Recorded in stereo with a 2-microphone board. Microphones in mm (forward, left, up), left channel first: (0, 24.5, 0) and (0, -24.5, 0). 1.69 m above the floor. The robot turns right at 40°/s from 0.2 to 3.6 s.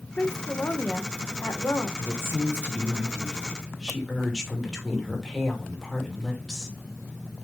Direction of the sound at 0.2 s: 35° left.